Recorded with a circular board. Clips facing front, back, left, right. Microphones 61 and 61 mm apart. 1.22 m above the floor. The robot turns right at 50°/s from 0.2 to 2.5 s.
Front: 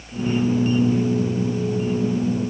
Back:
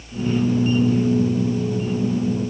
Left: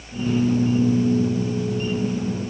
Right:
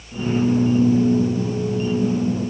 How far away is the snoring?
No snoring in this recording.